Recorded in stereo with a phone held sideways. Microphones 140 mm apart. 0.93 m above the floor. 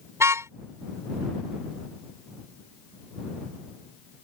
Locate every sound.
0.2 s a car horn: 20° right (ahead or behind)